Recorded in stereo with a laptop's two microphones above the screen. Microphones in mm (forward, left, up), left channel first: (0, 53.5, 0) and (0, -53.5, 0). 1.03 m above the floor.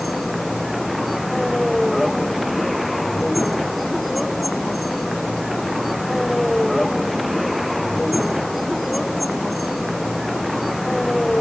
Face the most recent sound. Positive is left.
turn(degrees=0)  # may be behind; listen again after turning